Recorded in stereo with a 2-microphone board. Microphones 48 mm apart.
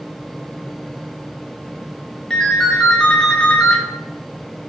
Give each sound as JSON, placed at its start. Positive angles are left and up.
{"t": 2.3, "sound": "a ringtone", "side_deg": 10, "distance_m": 0.5}